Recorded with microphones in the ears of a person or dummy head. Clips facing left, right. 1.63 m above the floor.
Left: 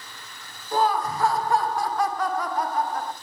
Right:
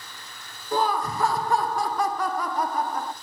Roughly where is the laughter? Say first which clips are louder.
Left 2 dB; right.